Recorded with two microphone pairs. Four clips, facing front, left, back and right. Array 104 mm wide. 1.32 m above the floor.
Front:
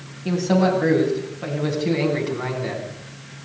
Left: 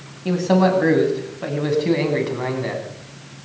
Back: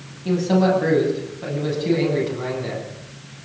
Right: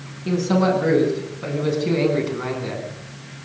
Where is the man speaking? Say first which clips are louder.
Left 2 dB, back 1 dB; 85° left, 9.5 m; by 2.9 s 75° left, 10 m.